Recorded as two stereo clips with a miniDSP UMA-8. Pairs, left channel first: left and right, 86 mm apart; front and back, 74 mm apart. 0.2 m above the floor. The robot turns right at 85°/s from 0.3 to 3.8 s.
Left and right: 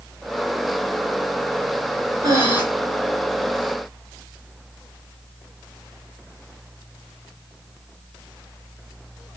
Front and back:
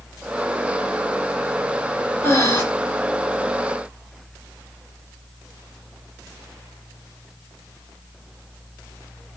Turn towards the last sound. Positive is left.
turn(degrees=80)